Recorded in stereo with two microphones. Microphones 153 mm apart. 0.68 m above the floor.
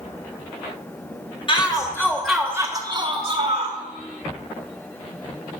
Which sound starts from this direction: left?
A shout, at 1.5 s.